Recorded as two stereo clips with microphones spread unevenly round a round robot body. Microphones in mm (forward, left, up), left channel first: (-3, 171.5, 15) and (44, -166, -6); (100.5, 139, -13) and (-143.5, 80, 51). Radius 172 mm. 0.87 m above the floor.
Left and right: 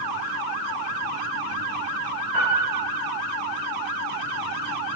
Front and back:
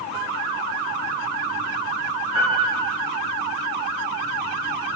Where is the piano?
50° right, 1.4 m.